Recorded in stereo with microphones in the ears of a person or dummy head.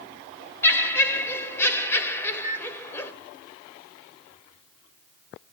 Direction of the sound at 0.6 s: 15° left (ahead or behind).